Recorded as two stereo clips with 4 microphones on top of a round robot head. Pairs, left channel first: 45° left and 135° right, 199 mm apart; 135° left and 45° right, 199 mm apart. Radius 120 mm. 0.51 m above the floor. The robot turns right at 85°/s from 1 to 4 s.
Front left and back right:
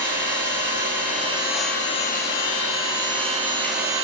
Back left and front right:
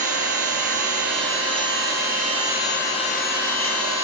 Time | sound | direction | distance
0.0 | an engine running | 95° right | 6 m